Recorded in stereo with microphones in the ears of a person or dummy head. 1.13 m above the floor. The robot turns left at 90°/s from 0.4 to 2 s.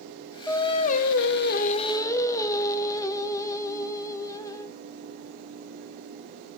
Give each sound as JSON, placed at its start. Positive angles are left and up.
{"t": 0.5, "sound": "singing", "azimuth_deg": 160, "distance_m": 0.9}